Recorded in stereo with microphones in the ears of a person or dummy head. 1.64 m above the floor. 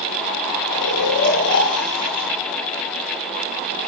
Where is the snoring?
80° left, 7.5 m.